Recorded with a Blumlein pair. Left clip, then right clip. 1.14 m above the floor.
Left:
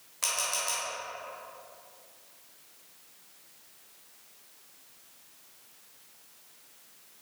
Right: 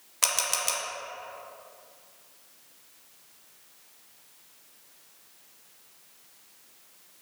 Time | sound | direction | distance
0.2 | a camera shutter | 25° right | 1.3 m